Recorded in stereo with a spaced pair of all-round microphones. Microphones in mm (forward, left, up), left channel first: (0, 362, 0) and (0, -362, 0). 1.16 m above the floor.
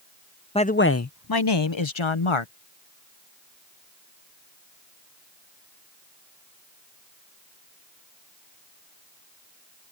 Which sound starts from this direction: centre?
A man speaking, at 0.6 s.